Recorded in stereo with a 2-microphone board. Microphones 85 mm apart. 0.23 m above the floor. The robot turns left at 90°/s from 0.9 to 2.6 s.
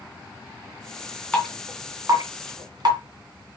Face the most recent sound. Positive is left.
turn(degrees=-55)  # may be behind; listen again after turning